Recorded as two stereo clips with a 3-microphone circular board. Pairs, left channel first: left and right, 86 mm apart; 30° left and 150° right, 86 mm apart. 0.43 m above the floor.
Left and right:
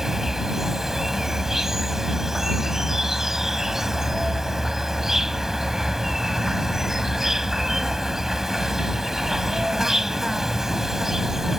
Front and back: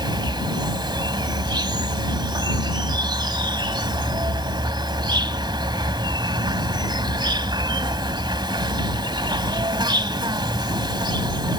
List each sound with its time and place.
0.0 s an insect: 175° right